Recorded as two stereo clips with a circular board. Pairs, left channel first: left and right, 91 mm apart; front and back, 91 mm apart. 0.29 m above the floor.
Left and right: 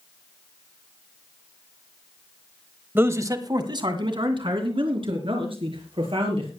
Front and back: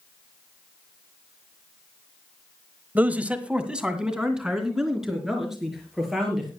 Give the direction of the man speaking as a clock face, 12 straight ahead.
4 o'clock.